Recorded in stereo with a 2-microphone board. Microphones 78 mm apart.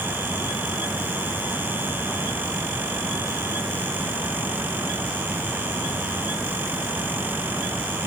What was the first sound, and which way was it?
Only background noise.